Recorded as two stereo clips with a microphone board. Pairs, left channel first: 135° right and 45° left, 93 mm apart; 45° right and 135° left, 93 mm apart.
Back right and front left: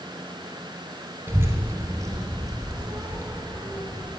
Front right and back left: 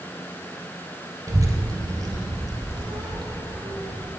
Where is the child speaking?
100° left, 0.9 m; by 4.1 s 90° left, 2.5 m.